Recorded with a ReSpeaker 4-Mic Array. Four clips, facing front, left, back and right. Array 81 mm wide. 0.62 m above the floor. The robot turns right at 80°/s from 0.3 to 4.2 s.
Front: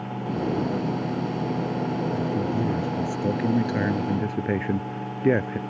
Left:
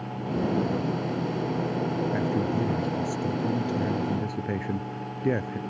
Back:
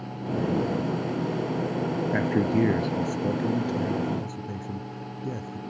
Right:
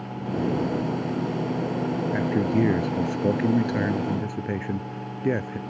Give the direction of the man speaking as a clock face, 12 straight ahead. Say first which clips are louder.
Right 6 dB, back 2 dB; 6 o'clock.